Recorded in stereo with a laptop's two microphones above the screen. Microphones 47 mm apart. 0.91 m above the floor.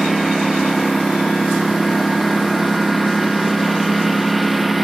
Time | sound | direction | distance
0.0 | a lawn mower | 5° right (ahead or behind) | ?